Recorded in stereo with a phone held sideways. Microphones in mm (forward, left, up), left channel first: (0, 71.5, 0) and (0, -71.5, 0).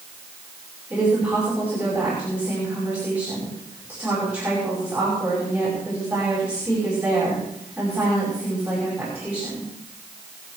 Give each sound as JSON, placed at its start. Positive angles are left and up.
{"t": 0.9, "sound": "a woman speaking", "side_deg": -10, "distance_m": 6.0}